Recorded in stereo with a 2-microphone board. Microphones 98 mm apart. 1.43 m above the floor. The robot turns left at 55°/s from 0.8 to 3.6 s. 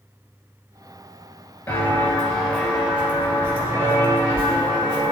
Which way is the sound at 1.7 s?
15° left (ahead or behind).